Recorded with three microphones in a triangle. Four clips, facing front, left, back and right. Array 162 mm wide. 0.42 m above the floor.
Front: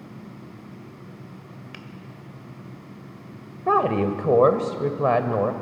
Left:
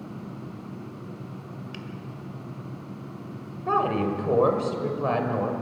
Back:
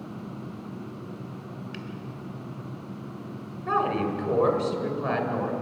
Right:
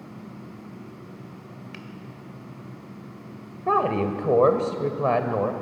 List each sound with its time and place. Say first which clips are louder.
1.7 s a finger snap: left 2 dB, back 3 dB; 25° right, 1.5 m
3.7 s a woman speaking: right 2 dB, front 5 dB; 25° right, 2.0 m